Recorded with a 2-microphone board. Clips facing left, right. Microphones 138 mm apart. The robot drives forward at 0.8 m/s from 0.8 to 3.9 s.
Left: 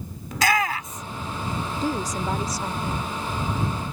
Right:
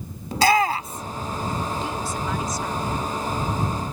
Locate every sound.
0.3 s a shout: 30° right (ahead or behind); by 1.2 s 25° right (ahead or behind)
1.8 s a woman speaking: 40° left (ahead or behind); by 3.2 s 25° left (ahead or behind)